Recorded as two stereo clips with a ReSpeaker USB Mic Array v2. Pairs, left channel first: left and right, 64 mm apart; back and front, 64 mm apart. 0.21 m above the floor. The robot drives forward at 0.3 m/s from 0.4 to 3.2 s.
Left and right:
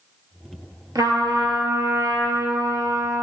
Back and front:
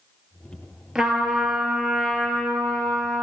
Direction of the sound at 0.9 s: 80° right.